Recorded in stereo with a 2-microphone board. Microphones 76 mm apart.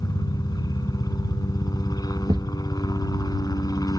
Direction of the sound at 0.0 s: 60° left (ahead or behind).